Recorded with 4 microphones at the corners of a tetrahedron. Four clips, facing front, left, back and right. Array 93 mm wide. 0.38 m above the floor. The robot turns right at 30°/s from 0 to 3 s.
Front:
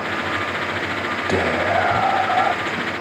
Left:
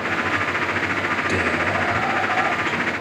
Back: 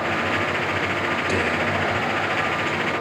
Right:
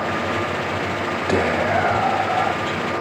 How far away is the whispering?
About 2.5 m.